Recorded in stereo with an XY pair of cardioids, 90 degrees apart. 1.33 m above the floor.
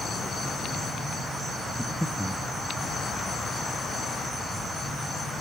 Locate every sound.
1.8 s breathing: 5° left, 1.6 m